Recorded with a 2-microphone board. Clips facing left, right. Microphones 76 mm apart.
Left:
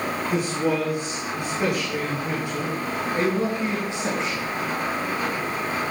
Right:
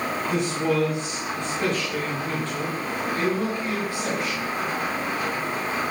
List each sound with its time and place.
0.3 s a man speaking: 5° left (ahead or behind), 7 m; by 4.4 s 25° left (ahead or behind), 6 m